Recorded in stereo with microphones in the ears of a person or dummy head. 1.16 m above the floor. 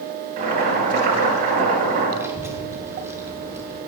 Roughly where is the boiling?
Right.